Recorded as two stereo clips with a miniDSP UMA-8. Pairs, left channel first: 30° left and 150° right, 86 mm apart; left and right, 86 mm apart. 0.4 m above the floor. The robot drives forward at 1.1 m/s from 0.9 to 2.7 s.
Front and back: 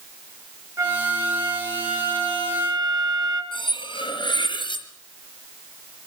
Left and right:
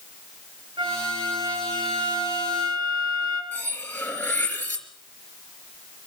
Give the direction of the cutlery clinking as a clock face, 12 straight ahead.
11 o'clock.